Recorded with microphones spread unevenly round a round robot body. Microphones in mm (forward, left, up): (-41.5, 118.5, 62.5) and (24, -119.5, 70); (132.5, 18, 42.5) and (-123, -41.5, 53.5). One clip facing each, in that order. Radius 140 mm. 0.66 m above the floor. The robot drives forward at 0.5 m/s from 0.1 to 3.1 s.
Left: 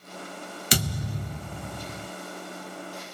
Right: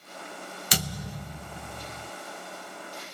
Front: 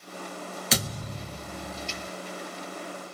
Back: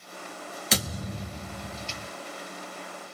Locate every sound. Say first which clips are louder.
0.7 s a thud: left 5 dB, back 1 dB; 105° left, 0.9 m; by 2.1 s 145° left, 1.2 m